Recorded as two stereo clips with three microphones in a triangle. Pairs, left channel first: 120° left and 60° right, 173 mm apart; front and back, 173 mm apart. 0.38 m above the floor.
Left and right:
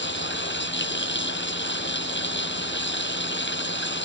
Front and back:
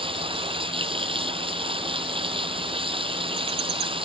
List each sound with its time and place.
0.0 s running water: 120° left